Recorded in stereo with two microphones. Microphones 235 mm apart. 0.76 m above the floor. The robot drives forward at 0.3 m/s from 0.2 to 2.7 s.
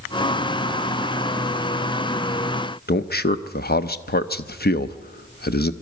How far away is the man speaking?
About 0.8 m.